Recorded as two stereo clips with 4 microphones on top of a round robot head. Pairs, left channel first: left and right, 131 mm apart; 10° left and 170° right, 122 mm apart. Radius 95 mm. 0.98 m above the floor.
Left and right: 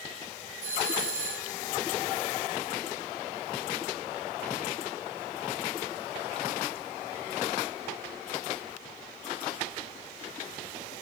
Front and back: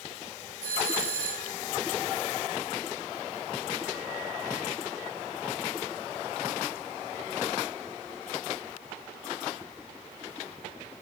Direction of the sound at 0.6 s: 130° right.